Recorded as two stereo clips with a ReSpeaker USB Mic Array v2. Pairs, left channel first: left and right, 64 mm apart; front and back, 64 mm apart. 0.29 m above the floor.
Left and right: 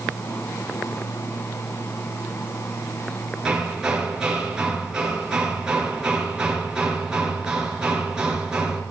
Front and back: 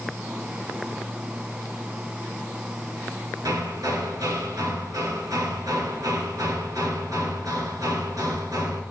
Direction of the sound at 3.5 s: 165° right.